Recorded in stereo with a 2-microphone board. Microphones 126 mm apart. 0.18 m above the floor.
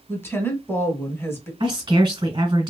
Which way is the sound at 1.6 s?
40° right (ahead or behind).